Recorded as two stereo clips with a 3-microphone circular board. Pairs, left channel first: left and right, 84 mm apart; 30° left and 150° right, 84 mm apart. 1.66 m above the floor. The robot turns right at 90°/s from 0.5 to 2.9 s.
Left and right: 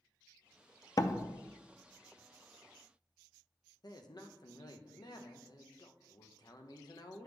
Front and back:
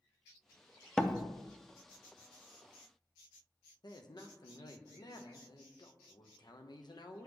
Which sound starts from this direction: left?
A door slam, at 1.0 s.